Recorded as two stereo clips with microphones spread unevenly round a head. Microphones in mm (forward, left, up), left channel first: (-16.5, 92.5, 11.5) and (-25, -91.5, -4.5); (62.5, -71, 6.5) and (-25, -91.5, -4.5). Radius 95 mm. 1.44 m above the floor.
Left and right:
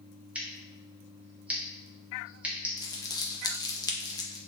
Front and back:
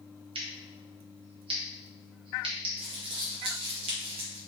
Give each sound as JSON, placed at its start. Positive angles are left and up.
{"t": 0.3, "sound": "scissors", "azimuth_deg": 180, "distance_m": 0.8}
{"t": 2.8, "sound": "crumpling", "azimuth_deg": 155, "distance_m": 0.6}